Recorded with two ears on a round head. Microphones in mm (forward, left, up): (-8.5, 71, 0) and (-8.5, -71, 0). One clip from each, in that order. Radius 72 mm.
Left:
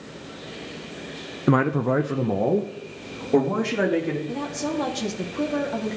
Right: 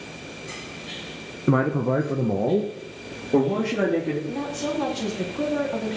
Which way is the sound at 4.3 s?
10° left (ahead or behind).